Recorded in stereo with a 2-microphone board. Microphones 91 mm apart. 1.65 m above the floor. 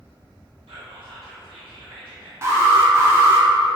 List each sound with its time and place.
0.7 s whispering: 70° right (ahead or behind), 0.6 m
2.4 s an alarm: 30° right (ahead or behind), 0.8 m